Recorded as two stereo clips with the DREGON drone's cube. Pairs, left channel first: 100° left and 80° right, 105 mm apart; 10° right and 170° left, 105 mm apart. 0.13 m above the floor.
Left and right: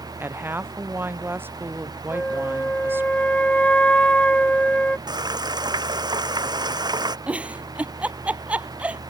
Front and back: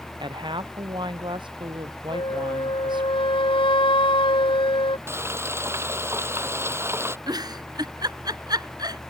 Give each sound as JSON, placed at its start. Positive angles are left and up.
{"t": 0.2, "sound": "a woman speaking", "azimuth_deg": -150}
{"t": 2.1, "sound": "a flute", "azimuth_deg": 20}
{"t": 5.1, "sound": "frying", "azimuth_deg": -125}
{"t": 7.3, "sound": "a giggle", "azimuth_deg": -155}